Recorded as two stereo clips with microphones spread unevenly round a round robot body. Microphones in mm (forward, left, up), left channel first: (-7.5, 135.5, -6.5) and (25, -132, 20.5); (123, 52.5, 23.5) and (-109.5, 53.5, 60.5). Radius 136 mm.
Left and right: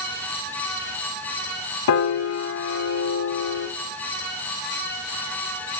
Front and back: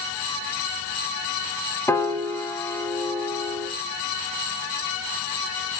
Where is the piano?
85° left, 0.7 m.